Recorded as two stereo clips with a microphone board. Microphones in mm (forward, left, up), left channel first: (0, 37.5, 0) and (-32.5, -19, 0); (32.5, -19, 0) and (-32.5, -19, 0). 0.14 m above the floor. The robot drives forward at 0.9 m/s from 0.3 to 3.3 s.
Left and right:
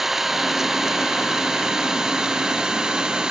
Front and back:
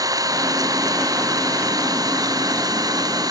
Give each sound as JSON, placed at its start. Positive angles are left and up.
{"t": 0.0, "sound": "an engine running", "azimuth_deg": 155}